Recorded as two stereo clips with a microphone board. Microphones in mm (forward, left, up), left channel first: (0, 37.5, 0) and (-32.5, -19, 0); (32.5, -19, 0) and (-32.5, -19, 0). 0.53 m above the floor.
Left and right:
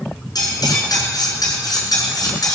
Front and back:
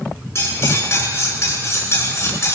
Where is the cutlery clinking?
50° left, 4.5 m.